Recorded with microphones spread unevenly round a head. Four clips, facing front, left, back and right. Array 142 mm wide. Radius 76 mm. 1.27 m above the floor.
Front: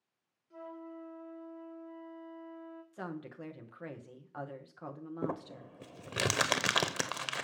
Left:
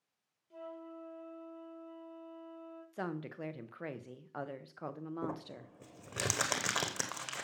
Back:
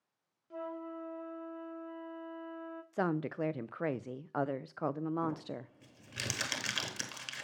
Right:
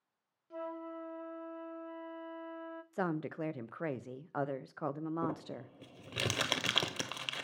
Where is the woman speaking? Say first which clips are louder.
Right 5 dB, back 10 dB; 160° right, 0.5 m.